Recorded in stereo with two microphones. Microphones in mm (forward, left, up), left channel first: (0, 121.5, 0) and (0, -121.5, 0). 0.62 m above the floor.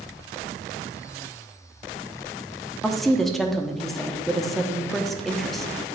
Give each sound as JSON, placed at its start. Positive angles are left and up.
{"t": 2.8, "sound": "a woman speaking", "side_deg": 0, "distance_m": 0.7}